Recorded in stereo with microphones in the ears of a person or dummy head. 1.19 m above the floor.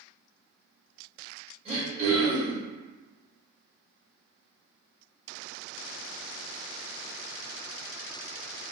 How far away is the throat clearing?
About 1.7 m.